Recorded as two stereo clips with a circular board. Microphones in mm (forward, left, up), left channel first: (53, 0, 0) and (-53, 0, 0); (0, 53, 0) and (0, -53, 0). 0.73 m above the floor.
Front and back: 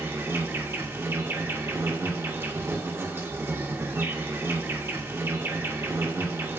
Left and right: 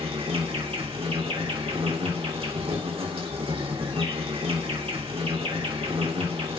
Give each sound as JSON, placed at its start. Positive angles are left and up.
{"t": 0.0, "sound": "an insect", "azimuth_deg": -115, "distance_m": 1.3}